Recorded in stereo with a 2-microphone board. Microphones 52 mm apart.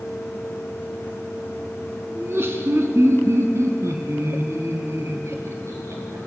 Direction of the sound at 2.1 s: 45° right (ahead or behind).